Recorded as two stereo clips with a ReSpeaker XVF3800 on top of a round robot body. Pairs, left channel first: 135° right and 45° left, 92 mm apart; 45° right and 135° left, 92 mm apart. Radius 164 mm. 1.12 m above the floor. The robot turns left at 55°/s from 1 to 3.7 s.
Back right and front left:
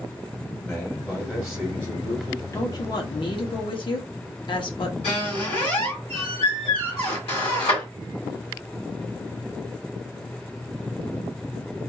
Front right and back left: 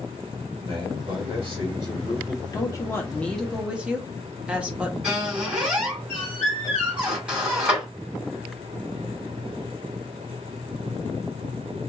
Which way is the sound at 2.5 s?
85° right.